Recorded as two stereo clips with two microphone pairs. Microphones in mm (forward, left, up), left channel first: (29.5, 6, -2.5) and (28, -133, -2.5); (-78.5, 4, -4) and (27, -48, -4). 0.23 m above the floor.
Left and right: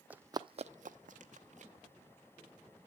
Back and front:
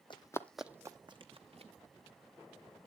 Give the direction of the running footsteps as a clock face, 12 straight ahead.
5 o'clock.